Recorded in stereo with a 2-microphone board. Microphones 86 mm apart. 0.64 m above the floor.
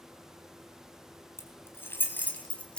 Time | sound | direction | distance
1.4 | keys jangling | 35° left (ahead or behind) | 3.5 m